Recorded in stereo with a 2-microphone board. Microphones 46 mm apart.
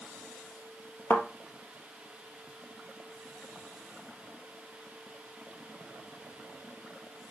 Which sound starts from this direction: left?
A thud, at 1.1 s.